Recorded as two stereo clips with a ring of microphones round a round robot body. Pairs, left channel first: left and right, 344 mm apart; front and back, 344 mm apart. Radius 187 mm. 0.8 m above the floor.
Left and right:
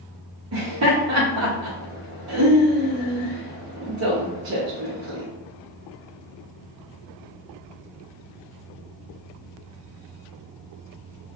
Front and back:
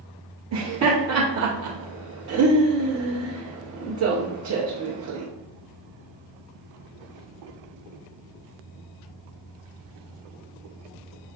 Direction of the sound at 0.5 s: 135° right.